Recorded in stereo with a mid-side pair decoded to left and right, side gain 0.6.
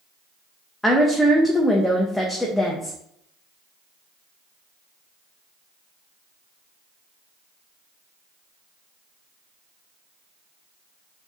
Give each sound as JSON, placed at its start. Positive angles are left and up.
{"t": 0.8, "sound": "a woman speaking", "azimuth_deg": 5, "distance_m": 0.7}